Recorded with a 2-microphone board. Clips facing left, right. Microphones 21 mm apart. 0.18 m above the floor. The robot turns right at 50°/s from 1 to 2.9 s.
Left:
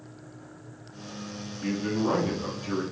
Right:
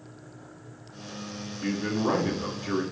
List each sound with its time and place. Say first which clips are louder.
1.6 s a man speaking: even; 25° right (ahead or behind), 1.2 m; by 2.8 s 20° right (ahead or behind), 1.2 m